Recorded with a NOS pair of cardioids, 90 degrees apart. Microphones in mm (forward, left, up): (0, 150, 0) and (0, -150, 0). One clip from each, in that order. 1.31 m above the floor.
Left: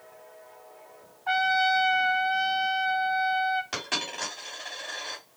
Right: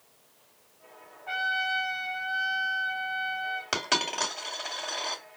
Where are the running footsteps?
No running footsteps in this recording.